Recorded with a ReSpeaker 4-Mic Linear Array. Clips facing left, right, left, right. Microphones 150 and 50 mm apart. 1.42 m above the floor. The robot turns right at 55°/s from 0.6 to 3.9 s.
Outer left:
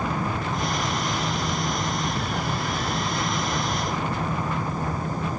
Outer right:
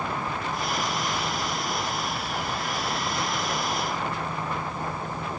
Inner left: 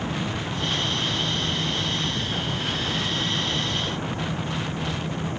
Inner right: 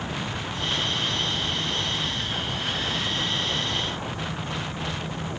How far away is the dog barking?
No dog barking in this recording.